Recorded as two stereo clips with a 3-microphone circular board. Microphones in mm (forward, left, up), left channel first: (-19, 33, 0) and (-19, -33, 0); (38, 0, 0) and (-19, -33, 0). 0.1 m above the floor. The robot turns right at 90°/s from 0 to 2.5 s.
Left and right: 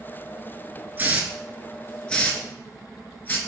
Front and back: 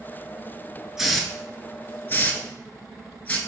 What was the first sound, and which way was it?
A hiss, 75° right.